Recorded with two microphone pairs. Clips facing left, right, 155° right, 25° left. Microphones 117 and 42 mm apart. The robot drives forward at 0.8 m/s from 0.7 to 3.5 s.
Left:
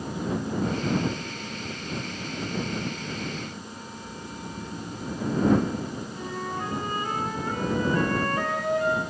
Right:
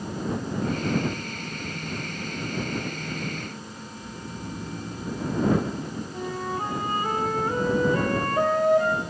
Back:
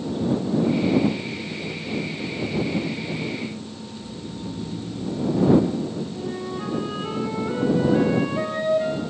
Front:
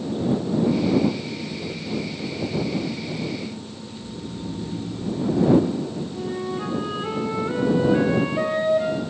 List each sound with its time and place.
4.0 s snoring: 10° right, 3 m
6.1 s a flute: 50° right, 2.5 m